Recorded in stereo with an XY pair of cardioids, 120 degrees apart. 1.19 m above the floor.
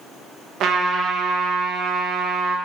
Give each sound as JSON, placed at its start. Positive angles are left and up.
{"t": 0.6, "sound": "a trumpet", "azimuth_deg": -65, "distance_m": 0.5}